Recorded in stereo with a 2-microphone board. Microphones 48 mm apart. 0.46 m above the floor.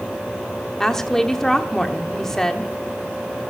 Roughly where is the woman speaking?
Centre.